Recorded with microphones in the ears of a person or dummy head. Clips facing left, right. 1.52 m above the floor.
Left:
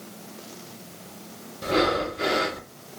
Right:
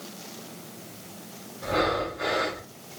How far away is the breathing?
About 0.6 m.